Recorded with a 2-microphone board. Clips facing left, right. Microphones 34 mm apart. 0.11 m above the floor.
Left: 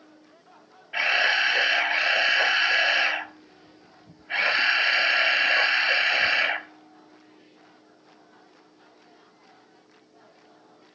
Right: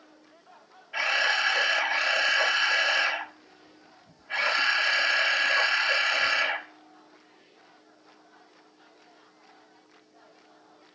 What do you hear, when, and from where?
0.9 s a camera shutter: 20° left (ahead or behind), 0.8 m